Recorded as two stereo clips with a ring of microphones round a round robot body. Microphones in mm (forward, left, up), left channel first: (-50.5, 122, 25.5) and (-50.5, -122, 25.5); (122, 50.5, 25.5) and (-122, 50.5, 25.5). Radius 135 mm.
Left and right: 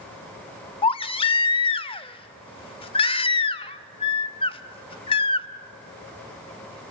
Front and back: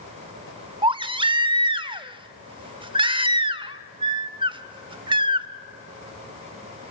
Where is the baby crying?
135° left, 0.7 m.